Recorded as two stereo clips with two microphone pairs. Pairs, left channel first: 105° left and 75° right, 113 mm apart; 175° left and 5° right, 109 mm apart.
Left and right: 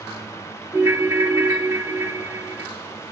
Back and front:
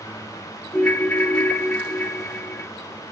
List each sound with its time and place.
0.7 s a ringtone: 115° right, 0.8 m